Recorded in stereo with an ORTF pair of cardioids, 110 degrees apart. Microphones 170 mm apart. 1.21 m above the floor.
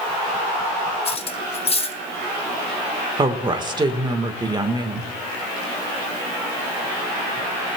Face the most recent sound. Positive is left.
turn(degrees=-30)